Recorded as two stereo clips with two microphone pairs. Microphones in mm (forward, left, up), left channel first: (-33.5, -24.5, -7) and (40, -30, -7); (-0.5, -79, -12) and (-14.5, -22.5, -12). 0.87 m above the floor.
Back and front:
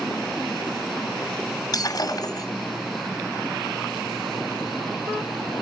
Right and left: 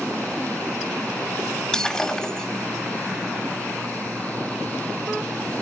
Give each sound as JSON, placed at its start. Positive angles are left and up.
{"t": 1.7, "sound": "breaking glass", "azimuth_deg": -155, "distance_m": 3.0}